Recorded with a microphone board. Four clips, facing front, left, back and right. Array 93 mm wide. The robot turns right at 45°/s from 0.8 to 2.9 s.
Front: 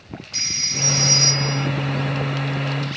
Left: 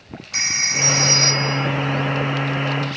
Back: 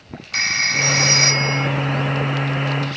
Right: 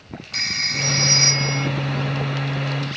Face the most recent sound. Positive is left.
turn(degrees=-105)